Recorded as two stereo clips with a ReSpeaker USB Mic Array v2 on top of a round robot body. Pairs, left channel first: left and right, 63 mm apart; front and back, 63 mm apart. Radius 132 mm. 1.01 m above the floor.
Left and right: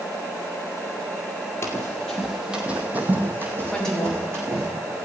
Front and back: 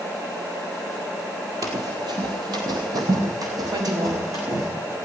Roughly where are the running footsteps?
Behind left.